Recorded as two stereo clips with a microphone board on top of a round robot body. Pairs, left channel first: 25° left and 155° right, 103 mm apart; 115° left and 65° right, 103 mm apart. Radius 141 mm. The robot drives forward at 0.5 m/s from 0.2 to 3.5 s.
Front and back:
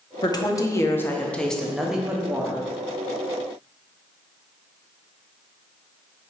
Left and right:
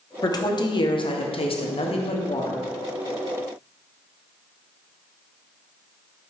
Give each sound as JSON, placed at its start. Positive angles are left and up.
{"t": 0.2, "sound": "a woman speaking", "azimuth_deg": 65, "distance_m": 1.1}